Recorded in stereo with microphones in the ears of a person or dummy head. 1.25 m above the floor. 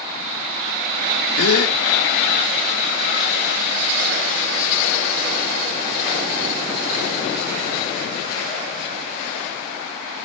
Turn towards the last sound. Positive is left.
turn(degrees=80)